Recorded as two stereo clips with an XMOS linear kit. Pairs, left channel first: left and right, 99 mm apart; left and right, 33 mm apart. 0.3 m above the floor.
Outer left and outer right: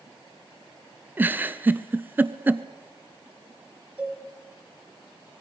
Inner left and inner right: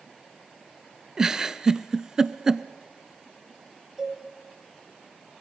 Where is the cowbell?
15° right (ahead or behind), 3 m.